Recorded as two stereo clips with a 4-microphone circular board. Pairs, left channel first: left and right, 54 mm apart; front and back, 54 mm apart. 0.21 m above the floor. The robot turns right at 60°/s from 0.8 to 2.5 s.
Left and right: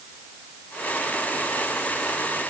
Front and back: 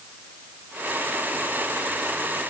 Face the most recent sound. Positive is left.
No sound to turn to.